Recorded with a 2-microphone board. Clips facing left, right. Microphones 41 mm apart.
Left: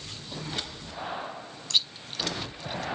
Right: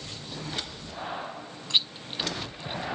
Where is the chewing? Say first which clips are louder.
Right 1 dB; 20° right (ahead or behind), 0.5 m.